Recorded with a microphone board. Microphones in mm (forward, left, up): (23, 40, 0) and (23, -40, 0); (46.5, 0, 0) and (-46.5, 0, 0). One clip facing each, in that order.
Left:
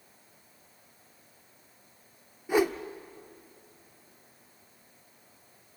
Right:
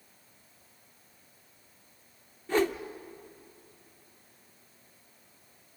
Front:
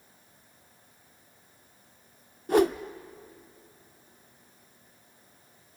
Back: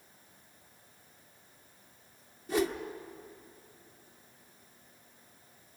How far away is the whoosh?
About 0.7 m.